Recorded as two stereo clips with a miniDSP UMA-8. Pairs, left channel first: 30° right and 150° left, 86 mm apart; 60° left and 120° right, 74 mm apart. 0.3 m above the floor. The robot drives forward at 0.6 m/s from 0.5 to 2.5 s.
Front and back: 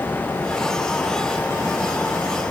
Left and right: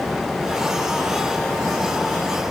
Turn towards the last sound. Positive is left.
No sound to turn to.